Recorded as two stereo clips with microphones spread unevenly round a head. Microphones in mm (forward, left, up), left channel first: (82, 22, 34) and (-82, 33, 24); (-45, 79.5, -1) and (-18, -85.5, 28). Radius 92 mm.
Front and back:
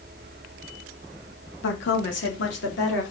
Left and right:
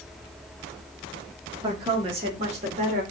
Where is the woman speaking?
10° right, 1.6 m; by 3.0 s 25° right, 2.5 m.